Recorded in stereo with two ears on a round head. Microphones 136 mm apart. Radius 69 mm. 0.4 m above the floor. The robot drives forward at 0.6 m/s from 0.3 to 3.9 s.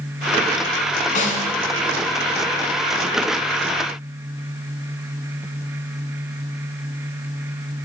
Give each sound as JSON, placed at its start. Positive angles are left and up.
{"t": 1.1, "sound": "a snare drum", "side_deg": 55, "distance_m": 2.0}